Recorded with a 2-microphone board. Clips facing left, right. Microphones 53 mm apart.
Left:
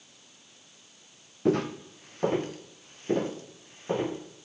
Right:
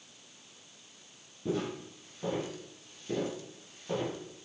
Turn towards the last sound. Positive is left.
turn(degrees=30)  # may be behind; listen again after turning